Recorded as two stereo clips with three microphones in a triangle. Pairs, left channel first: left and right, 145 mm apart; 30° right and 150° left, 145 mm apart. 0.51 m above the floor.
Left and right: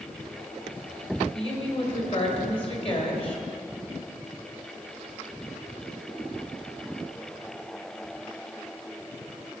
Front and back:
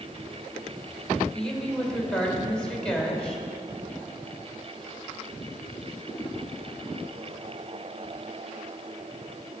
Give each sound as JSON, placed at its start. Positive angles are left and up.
{"t": 1.3, "sound": "a woman speaking", "azimuth_deg": 55, "distance_m": 2.0}